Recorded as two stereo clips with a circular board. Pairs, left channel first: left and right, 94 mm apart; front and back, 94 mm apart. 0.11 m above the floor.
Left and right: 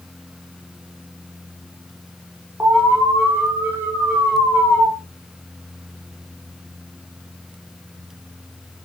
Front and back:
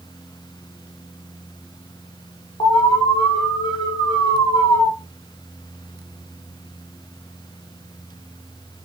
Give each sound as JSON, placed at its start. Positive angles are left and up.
{"t": 2.6, "sound": "an alarm", "azimuth_deg": -25, "distance_m": 5.5}